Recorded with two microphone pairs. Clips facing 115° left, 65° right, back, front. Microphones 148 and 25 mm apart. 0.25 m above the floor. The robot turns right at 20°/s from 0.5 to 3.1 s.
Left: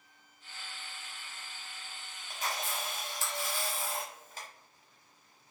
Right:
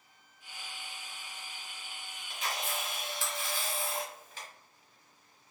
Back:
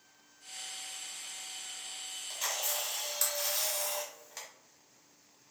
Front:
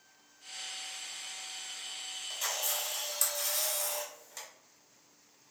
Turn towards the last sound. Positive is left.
turn(degrees=115)